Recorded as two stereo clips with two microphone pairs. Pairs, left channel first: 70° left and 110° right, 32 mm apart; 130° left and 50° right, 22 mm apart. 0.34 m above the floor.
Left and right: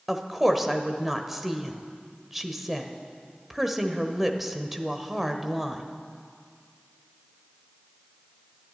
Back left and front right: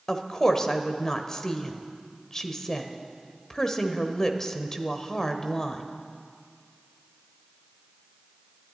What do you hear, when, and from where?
0.1 s a woman speaking: 170° left, 1.2 m